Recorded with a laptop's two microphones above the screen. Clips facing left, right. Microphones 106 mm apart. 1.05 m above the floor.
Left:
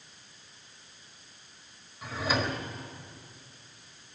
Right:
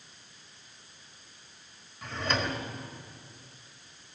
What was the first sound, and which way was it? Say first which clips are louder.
A drawer: left 1 dB; 5° left (ahead or behind).